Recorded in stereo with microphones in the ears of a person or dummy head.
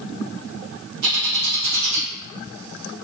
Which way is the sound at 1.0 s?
85° right.